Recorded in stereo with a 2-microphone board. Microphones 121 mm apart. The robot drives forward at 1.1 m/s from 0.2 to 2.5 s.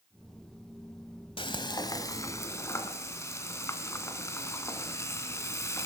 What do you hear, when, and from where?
1.4 s frying: 45° left (ahead or behind), 1.2 m; by 5.9 s 25° left (ahead or behind), 2 m